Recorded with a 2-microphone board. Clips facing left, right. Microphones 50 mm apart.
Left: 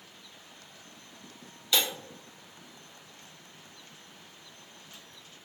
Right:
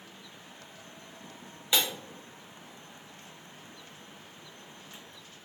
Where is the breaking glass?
20° right (ahead or behind), 1.7 m.